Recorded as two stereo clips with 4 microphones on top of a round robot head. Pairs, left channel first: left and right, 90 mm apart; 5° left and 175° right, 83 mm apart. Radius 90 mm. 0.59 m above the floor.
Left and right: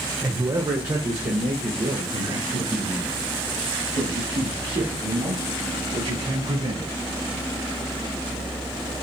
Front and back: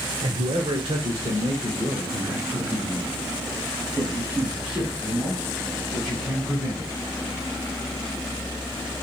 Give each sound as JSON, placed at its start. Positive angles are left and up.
{"t": 0.2, "sound": "a man speaking", "azimuth_deg": -150, "distance_m": 1.9}